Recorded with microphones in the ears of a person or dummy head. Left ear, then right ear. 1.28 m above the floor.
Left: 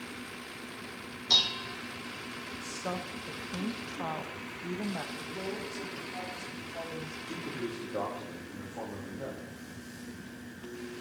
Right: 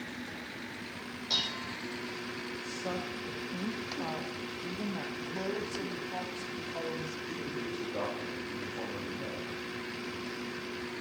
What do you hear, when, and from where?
1.3 s dishes clattering: 10° left (ahead or behind), 0.9 m
2.6 s a woman speaking: 20° left (ahead or behind), 0.9 m
5.2 s a man speaking: 50° right (ahead or behind), 3.5 m
7.3 s a man speaking: 25° left (ahead or behind), 3 m